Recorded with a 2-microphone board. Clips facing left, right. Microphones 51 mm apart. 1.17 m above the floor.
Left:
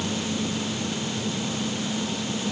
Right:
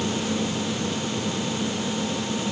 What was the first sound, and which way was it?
Only background noise.